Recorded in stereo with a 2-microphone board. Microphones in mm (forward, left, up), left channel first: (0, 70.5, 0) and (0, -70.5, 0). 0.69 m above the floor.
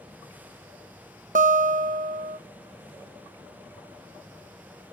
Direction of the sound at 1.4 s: 70° right (ahead or behind).